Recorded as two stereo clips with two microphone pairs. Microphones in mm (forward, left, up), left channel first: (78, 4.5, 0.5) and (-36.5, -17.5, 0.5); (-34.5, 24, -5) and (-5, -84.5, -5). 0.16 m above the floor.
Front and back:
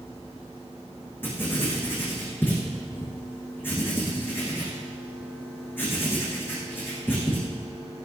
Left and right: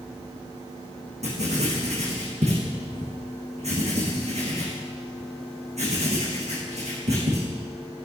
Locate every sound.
1.2 s writing: 60° right, 5 m